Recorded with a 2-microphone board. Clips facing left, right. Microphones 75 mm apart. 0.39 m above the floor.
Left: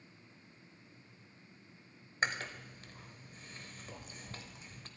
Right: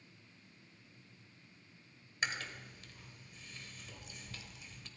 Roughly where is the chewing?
Left.